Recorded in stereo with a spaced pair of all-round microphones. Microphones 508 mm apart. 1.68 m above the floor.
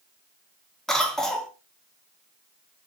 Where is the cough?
Centre (ahead or behind), 0.6 m.